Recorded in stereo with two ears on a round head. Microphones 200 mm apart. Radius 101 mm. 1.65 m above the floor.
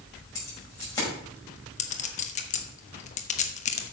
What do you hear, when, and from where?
0.3 s keys jangling: 15° left (ahead or behind), 5.5 m
1.8 s a clink: 30° left (ahead or behind), 1.1 m